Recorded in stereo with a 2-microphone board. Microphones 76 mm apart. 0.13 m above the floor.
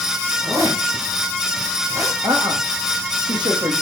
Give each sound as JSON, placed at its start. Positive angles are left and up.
{"t": 0.4, "sound": "a zipper", "side_deg": -50, "distance_m": 6.0}
{"t": 2.2, "sound": "a woman speaking", "side_deg": -75, "distance_m": 5.5}